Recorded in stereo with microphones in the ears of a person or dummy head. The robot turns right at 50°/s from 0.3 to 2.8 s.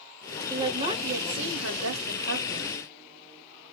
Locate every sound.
0.5 s a woman speaking: 160° right, 1.0 m; by 2.8 s 45° right, 1.0 m